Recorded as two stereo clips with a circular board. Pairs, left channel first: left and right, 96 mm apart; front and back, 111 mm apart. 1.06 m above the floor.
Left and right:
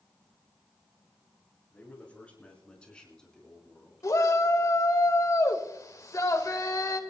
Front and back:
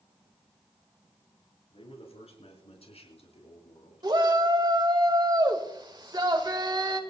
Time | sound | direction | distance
1.7 | a man speaking | 15° left | 5 m
4.0 | a shout | 135° left | 1.6 m